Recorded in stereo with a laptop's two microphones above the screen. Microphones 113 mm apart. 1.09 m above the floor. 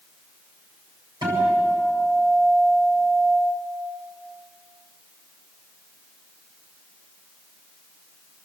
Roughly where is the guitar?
Right.